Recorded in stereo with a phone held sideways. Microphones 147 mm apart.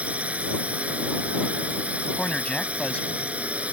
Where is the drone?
10° right (ahead or behind).